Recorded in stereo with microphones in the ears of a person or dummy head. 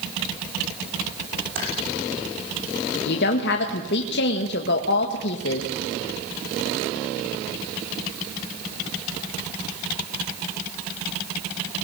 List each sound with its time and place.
1.6 s typing on a keyboard: 55° right (ahead or behind), 7.5 m
3.0 s a woman speaking: 65° left (ahead or behind), 1.8 m